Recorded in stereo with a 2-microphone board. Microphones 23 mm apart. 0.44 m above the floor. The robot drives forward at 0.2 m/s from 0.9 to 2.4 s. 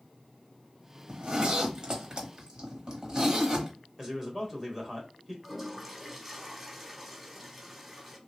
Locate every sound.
1.1 s a zipper: 40° right (ahead or behind), 0.8 m; by 3.7 s 30° right (ahead or behind), 1.1 m
4.0 s a man speaking: 10° right (ahead or behind), 1.4 m
5.4 s a toilet flushing: 15° right (ahead or behind), 0.9 m